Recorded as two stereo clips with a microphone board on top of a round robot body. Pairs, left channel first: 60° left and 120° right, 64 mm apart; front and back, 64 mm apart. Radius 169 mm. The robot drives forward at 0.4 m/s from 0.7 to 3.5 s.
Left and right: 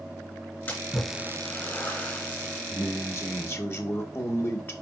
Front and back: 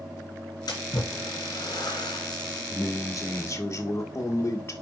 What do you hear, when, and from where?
0.7 s a splash: 5° right, 2.5 m; by 2.8 s 10° right, 1.7 m
2.7 s a man speaking: 15° left, 1.7 m; by 4.7 s 20° left, 1.5 m